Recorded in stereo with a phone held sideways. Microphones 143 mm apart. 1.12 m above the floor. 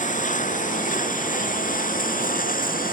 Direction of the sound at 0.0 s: 60° left (ahead or behind).